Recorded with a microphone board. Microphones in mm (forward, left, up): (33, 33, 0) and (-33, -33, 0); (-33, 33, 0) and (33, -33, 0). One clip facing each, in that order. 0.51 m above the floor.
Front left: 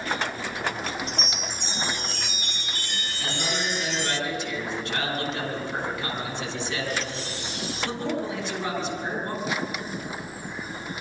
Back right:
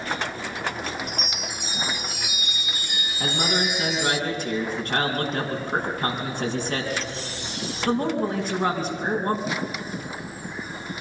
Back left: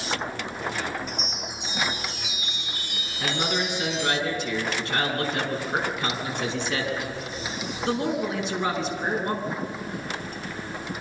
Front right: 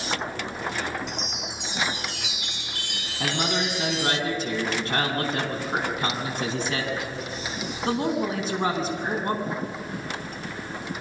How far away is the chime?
About 0.8 m.